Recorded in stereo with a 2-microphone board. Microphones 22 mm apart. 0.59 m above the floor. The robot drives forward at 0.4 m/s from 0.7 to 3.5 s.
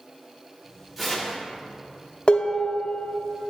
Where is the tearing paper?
Centre (ahead or behind), 1.1 m.